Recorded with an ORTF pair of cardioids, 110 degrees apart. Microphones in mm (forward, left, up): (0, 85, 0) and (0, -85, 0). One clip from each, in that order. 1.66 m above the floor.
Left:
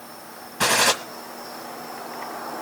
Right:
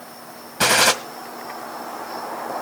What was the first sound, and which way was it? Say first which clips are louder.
A gunshot: right 3 dB; 25° right.